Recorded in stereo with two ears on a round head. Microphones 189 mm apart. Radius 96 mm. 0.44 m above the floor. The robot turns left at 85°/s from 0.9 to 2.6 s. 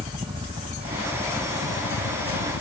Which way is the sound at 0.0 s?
25° right (ahead or behind).